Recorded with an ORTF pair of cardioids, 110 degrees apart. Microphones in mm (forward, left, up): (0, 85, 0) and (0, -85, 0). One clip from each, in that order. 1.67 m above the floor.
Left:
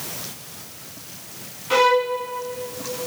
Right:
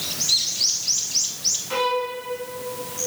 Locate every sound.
1.7 s a violin: 40° left, 3 m